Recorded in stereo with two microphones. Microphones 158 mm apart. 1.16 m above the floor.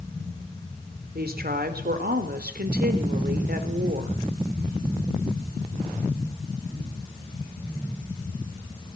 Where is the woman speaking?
75° right (ahead or behind), 3.5 m.